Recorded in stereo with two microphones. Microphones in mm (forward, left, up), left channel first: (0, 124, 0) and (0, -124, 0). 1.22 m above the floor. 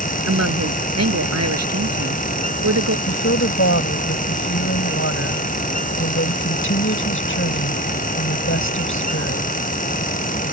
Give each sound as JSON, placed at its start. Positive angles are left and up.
{"t": 0.3, "sound": "a woman speaking", "side_deg": -85}
{"t": 3.1, "sound": "a woman speaking", "side_deg": 55}